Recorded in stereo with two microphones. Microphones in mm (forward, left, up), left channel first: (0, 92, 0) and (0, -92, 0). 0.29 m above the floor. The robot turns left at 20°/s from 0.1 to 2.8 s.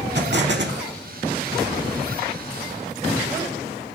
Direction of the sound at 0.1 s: 75° right (ahead or behind).